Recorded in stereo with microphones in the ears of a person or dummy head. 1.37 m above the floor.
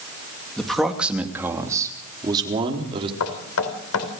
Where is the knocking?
85° left, 4 m.